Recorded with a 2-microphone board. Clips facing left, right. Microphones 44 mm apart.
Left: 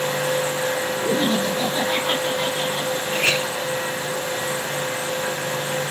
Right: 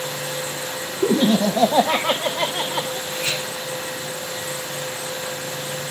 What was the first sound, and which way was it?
Laughter, 75° right (ahead or behind).